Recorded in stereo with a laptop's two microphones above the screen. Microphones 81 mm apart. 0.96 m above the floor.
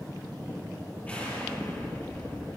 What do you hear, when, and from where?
1.1 s an explosion: 20° left (ahead or behind), 5.5 m